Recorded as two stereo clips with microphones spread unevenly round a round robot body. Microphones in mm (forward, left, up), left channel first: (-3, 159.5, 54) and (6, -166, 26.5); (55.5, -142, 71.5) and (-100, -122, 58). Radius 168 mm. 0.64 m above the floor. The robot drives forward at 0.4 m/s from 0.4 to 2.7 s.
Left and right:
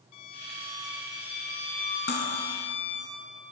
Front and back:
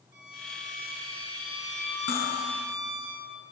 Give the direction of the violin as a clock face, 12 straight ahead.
9 o'clock.